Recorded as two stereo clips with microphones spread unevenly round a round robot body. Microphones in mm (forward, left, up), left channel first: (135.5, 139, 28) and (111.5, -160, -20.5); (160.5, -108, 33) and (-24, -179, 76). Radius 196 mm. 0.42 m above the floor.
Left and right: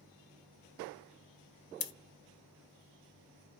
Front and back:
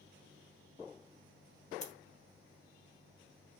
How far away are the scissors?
About 0.7 m.